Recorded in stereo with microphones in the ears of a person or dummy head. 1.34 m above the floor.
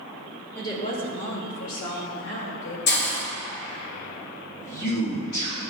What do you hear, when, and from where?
0.6 s a woman speaking: 10° left (ahead or behind), 0.8 m; by 2.8 s 80° left, 2.5 m
2.9 s a hiss: 50° left (ahead or behind), 0.8 m
4.6 s a man speaking: 50° left (ahead or behind), 1.8 m